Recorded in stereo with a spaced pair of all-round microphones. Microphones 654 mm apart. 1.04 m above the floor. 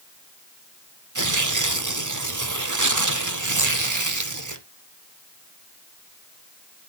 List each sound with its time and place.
1.1 s tearing paper: 30° right (ahead or behind), 0.9 m